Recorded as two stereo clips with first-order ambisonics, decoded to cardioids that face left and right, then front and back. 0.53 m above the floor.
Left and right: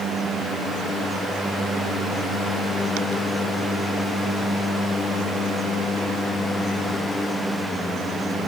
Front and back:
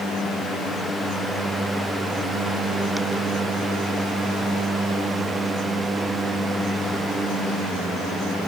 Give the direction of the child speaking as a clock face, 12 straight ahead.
No child speaking in this recording.